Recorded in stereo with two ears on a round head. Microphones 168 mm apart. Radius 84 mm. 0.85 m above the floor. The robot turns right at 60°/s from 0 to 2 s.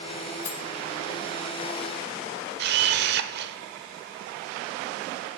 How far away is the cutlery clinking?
About 0.6 m.